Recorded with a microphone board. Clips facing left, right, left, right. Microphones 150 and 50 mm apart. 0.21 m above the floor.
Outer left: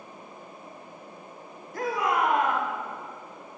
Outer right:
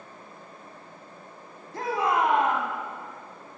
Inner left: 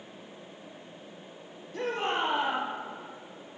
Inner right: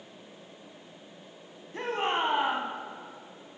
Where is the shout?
30° right (ahead or behind), 1.2 m.